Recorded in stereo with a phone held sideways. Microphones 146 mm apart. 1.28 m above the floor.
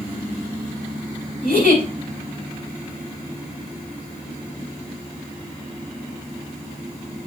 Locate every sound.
1.4 s a giggle: 80° left, 4.5 m